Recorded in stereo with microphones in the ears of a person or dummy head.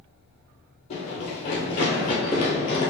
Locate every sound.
0.9 s running footsteps: 40° left (ahead or behind), 1.7 m; by 2.9 s 15° left (ahead or behind), 1.3 m